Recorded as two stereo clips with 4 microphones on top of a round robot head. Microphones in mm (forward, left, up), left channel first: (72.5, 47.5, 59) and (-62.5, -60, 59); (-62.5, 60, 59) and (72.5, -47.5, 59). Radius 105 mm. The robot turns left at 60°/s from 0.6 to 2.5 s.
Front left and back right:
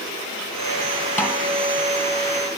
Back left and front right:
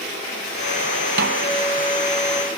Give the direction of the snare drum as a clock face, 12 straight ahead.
1 o'clock.